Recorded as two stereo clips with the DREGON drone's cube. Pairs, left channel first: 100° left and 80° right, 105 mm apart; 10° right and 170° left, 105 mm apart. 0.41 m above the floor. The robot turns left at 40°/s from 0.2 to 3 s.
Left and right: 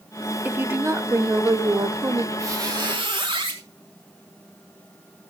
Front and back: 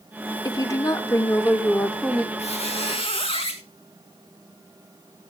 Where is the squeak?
15° right, 1.9 m; by 3.6 s 40° right, 1.9 m.